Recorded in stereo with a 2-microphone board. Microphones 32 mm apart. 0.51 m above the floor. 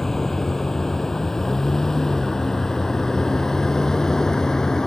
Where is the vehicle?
15° left (ahead or behind); by 4.9 s 20° left (ahead or behind).